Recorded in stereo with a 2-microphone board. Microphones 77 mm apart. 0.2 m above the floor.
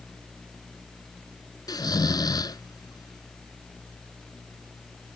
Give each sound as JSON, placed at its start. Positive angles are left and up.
{"t": 1.7, "sound": "snoring", "side_deg": 60}